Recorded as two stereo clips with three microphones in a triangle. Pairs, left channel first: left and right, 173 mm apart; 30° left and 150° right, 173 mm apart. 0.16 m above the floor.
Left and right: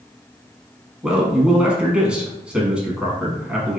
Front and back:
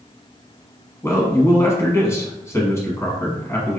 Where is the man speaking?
15° right, 1.0 m.